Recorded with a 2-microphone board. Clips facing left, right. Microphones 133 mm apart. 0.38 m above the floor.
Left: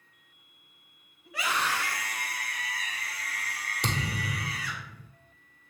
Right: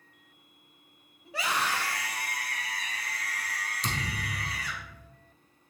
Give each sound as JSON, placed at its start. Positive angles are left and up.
{"t": 1.2, "sound": "a scream", "side_deg": -30, "distance_m": 1.8}
{"t": 3.8, "sound": "a thud", "side_deg": 70, "distance_m": 1.3}